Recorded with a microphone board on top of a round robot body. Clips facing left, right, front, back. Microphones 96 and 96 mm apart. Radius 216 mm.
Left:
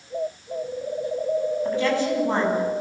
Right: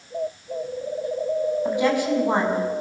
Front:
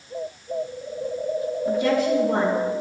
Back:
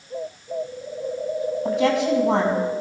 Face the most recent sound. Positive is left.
turn(degrees=-165)